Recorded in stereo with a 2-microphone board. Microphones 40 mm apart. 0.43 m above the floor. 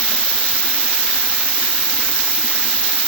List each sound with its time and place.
0.0 s an insect: 20° left (ahead or behind), 1.5 m